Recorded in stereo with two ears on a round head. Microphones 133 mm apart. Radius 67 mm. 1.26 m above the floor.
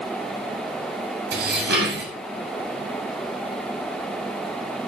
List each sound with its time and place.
1.3 s dishes clattering: 70° right (ahead or behind), 6.5 m